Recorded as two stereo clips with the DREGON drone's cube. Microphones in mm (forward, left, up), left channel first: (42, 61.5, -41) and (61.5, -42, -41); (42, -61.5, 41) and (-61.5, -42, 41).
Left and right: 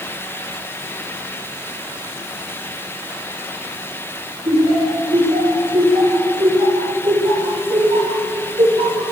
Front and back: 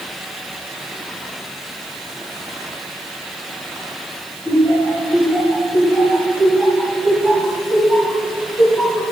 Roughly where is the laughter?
Right.